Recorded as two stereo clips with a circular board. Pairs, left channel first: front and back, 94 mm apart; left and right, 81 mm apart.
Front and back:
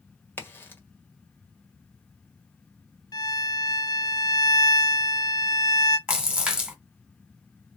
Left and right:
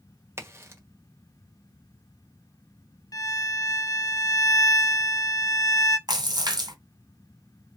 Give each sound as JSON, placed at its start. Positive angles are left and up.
{"t": 0.4, "sound": "a crack", "azimuth_deg": -55, "distance_m": 1.5}
{"t": 3.1, "sound": "a violin", "azimuth_deg": 45, "distance_m": 0.9}
{"t": 6.1, "sound": "a splash", "azimuth_deg": -100, "distance_m": 2.5}